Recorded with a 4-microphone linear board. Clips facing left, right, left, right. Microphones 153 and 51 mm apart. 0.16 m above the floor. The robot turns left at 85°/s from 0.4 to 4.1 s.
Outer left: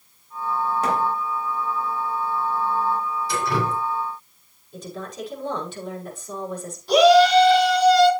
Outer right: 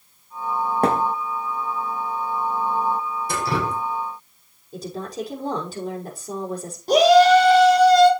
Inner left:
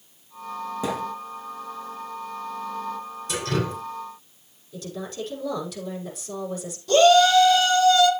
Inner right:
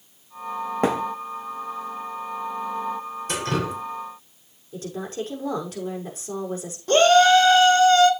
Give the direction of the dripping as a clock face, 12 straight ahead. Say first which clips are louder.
Even, inner right 1 dB; 4 o'clock.